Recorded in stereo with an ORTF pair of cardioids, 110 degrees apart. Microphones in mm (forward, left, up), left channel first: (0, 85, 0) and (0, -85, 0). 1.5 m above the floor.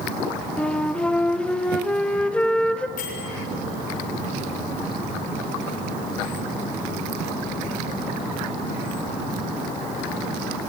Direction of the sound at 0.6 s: 5° left.